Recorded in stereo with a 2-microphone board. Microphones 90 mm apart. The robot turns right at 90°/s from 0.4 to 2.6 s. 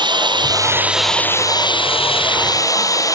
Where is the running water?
55° right; by 3.2 s 140° left.